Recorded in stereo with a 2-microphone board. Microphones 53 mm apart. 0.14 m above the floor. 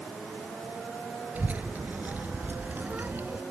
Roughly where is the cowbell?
I don't hear a cowbell.